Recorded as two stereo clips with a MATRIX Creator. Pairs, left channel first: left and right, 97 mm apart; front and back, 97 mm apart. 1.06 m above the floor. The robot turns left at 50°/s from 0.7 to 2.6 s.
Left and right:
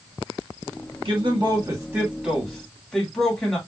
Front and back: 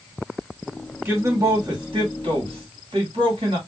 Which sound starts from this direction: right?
A man speaking, at 1.1 s.